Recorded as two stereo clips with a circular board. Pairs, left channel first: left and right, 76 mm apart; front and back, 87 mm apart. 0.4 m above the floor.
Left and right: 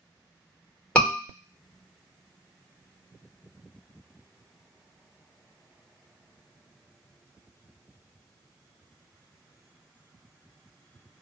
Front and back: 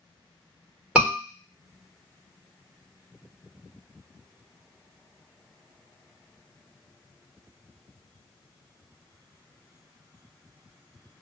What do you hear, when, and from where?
0.9 s a scream: 130° left, 1.3 m